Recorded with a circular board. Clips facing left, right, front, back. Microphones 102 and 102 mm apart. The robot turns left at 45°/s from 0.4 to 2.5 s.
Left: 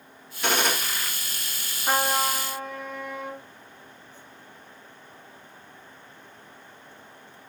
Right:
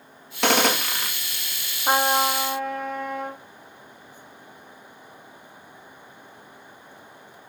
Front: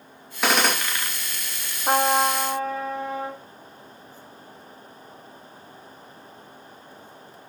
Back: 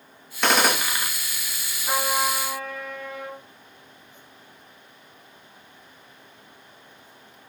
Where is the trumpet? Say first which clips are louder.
Right 4 dB, front 5 dB; 30° right, 1.8 m; by 3.4 s 60° right, 1.8 m.